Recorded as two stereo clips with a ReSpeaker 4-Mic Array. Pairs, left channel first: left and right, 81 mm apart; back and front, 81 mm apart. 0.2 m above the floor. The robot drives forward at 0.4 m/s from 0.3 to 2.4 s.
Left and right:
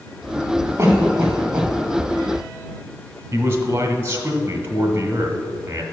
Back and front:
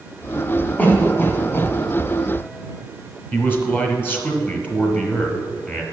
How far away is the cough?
About 1.6 m.